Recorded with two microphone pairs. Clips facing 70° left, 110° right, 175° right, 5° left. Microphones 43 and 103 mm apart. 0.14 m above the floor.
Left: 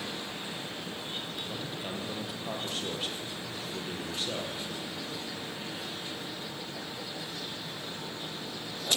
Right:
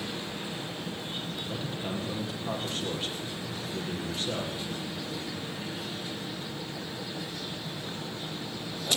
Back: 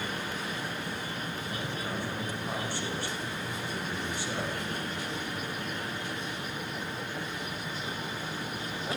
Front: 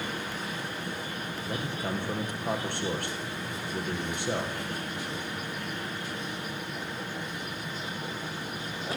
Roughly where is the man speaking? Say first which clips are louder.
Right 3 dB, front 2 dB; ahead.